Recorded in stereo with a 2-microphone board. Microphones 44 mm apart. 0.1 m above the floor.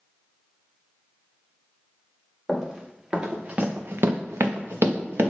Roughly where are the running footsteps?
Centre.